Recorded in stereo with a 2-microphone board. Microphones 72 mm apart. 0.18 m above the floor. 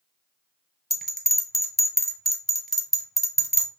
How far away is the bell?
About 1.0 m.